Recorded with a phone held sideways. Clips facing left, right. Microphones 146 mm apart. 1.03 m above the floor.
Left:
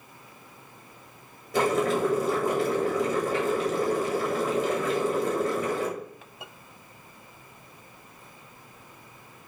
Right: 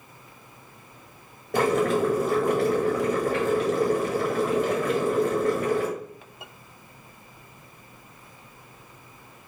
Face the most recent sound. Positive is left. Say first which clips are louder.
# right 2 dB
turn(degrees=-60)  # may be behind; listen again after turning